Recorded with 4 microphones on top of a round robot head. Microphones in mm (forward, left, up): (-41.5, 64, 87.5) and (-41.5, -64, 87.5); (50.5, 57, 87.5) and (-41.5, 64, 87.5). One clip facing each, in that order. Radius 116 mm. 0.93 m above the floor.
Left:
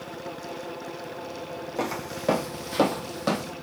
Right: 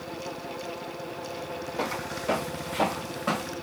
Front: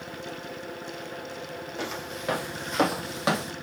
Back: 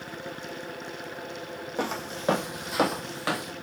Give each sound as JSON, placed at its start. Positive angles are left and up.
{"t": 1.8, "sound": "footsteps", "azimuth_deg": 130, "distance_m": 2.5}